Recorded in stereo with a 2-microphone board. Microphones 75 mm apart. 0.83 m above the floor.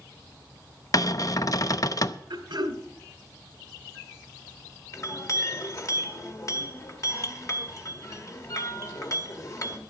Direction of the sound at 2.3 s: 75° right (ahead or behind).